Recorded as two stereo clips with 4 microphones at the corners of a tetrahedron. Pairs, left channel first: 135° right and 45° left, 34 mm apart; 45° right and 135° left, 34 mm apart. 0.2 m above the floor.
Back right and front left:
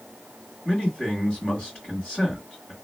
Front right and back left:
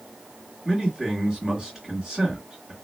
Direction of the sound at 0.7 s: 165° right.